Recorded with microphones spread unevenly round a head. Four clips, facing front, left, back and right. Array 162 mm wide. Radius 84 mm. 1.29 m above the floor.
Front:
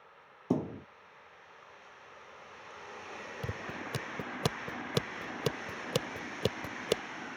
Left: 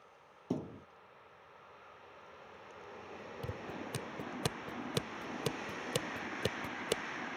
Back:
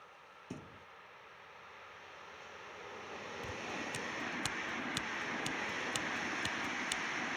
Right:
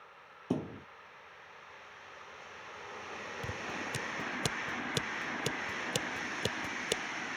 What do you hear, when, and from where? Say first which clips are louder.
0.5 s a thud: right 3 dB, front 18 dB; 15° right
3.4 s scissors: right 2 dB, front 2 dB; straight ahead